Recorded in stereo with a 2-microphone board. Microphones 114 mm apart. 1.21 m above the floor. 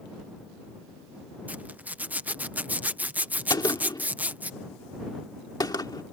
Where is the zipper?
15° right (ahead or behind).